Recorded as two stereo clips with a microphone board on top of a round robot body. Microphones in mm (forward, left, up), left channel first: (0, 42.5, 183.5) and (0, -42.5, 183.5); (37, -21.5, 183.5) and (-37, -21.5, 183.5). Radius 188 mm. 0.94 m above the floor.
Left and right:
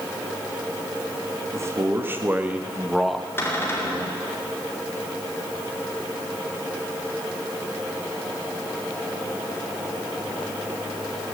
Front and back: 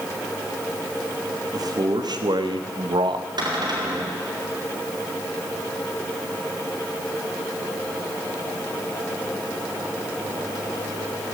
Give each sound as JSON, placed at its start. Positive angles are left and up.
{"t": 1.5, "sound": "a man speaking", "azimuth_deg": -145, "distance_m": 1.5}
{"t": 3.4, "sound": "a cupboard door", "azimuth_deg": 155, "distance_m": 3.5}